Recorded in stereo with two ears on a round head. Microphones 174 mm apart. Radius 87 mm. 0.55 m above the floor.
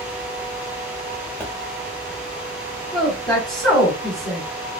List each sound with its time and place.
1.4 s a pop: 10° left (ahead or behind), 0.7 m
2.9 s a woman speaking: 5° left (ahead or behind), 1.2 m